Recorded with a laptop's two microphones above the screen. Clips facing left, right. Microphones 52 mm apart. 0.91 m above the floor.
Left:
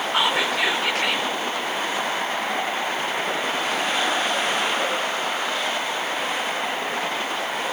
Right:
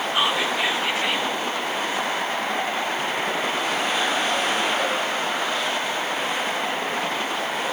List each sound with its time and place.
0.1 s whispering: 70° left (ahead or behind), 3.5 m